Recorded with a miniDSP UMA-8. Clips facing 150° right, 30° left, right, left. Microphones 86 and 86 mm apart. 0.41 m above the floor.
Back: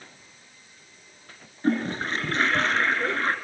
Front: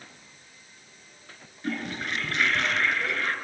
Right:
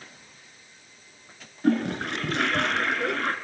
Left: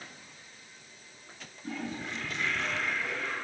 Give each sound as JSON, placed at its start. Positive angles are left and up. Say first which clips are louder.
{"t": 1.6, "sound": "a toilet flushing", "louder": "back 7 dB, right 13 dB", "azimuth_deg": -95, "distance_m": 1.7}